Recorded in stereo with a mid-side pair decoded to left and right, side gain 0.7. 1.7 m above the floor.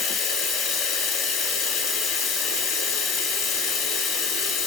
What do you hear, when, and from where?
0.0 s running water: 50° left, 1.2 m